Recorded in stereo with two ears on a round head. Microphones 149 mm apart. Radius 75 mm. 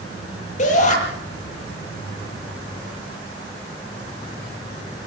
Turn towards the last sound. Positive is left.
turn(degrees=45)  # may be behind; listen again after turning